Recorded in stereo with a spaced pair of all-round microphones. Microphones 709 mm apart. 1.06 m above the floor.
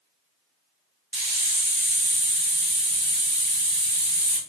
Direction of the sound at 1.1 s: 35° right (ahead or behind).